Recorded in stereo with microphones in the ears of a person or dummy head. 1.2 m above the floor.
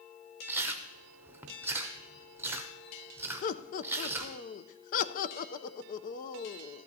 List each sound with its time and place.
0.5 s chewing: 15° right (ahead or behind), 0.6 m
3.4 s laughter: 45° left (ahead or behind), 0.5 m